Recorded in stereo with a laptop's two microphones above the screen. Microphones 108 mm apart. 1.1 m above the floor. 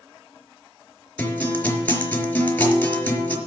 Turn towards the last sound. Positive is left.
turn(degrees=15)  # may be behind; listen again after turning